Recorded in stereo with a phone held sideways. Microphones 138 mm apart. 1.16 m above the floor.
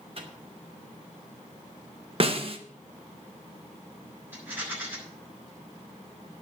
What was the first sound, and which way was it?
A microwave, 45° right (ahead or behind).